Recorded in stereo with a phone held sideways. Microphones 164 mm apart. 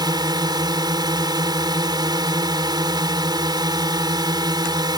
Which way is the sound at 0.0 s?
25° right (ahead or behind).